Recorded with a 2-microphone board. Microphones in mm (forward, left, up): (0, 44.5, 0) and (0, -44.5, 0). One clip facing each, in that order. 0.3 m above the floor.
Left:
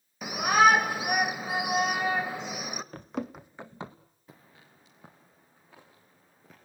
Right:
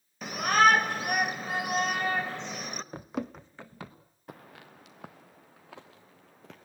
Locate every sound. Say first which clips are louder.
0.2 s a shout: left 1 dB; 10° left (ahead or behind), 1.0 m
2.9 s running footsteps: right 2 dB; 15° right (ahead or behind), 0.8 m; by 4.0 s 25° left (ahead or behind), 1.6 m
4.3 s footsteps: right 8 dB; 65° right (ahead or behind), 1.4 m; by 6.7 s 85° right, 4.5 m